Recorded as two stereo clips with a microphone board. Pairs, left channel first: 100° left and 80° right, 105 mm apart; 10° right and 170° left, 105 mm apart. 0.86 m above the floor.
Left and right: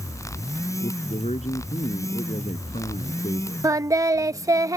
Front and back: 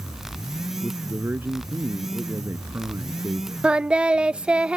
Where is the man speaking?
100° left.